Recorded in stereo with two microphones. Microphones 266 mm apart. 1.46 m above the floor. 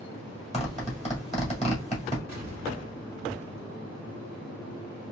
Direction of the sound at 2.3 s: 75° left (ahead or behind).